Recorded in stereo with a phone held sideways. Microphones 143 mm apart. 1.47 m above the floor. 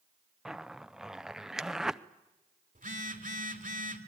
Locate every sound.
0.5 s a zipper: 5° right (ahead or behind), 0.5 m
2.8 s a phone buzzing: 65° right (ahead or behind), 2 m